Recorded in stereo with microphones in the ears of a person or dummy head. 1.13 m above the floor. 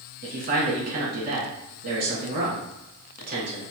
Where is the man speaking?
50° right (ahead or behind), 1.8 m.